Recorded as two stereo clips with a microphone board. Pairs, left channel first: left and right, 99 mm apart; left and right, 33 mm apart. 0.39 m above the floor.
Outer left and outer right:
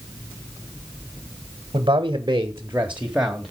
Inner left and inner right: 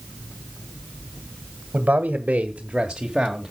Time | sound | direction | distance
1.7 | a man speaking | 55° right (ahead or behind) | 1.3 m